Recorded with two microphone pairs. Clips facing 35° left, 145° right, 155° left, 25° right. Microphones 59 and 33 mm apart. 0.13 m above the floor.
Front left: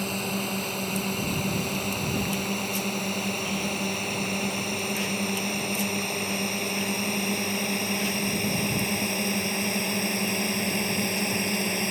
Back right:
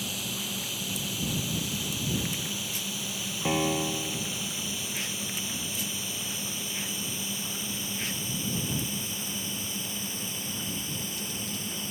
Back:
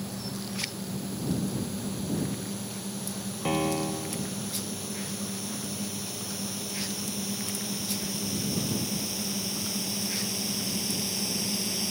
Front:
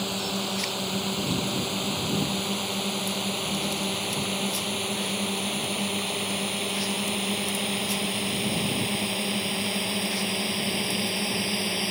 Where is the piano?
170° right.